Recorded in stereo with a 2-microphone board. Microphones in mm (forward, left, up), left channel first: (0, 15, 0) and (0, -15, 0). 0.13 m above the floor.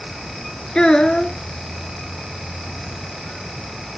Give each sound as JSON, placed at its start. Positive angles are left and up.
{"t": 0.8, "sound": "a child speaking", "side_deg": 25, "distance_m": 1.0}